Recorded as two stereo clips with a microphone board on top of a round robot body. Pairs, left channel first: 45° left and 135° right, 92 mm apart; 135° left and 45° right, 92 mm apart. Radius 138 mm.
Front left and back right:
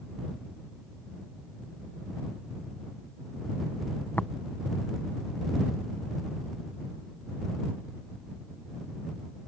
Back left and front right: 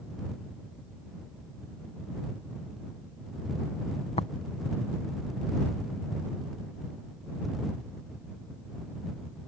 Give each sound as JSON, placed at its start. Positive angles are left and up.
{"t": 4.2, "sound": "tapping", "azimuth_deg": 120}